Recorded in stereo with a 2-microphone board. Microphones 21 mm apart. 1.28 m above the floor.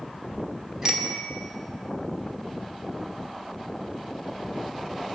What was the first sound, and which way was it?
A bicycle bell, 30° right (ahead or behind).